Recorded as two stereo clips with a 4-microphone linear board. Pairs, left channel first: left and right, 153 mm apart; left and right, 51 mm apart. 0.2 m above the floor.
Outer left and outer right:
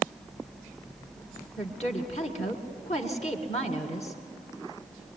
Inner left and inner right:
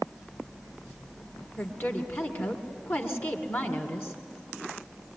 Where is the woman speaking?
45° left (ahead or behind), 2.5 m.